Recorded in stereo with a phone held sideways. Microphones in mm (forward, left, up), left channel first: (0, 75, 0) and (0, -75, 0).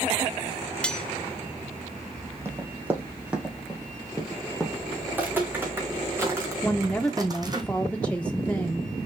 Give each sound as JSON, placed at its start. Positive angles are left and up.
{"t": 0.8, "sound": "cutlery clinking", "side_deg": 5, "distance_m": 0.9}
{"t": 2.5, "sound": "running footsteps", "side_deg": -15, "distance_m": 2.5}
{"t": 5.1, "sound": "footsteps", "side_deg": -10, "distance_m": 3.5}
{"t": 6.6, "sound": "a woman speaking", "side_deg": 10, "distance_m": 0.7}